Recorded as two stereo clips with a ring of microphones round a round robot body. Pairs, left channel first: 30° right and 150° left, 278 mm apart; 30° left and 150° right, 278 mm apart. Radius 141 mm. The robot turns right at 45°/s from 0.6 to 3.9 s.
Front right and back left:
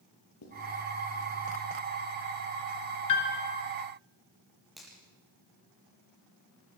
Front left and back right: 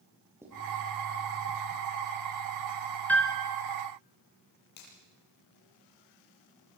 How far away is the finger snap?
About 8 m.